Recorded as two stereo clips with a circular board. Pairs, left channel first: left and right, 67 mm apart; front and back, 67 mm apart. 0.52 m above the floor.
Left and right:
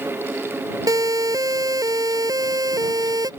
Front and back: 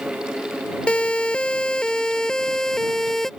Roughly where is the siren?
Right.